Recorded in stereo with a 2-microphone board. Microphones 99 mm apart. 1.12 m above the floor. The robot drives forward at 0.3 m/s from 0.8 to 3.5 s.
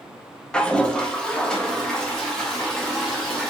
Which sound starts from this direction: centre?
A toilet flushing, at 0.5 s.